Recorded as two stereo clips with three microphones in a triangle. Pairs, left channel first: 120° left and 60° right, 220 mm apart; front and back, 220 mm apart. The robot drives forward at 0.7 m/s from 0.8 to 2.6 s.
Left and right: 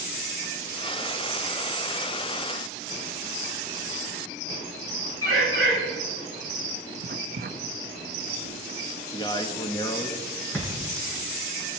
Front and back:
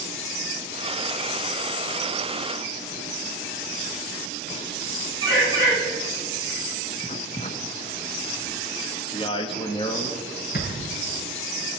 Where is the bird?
110° left, 6.5 m.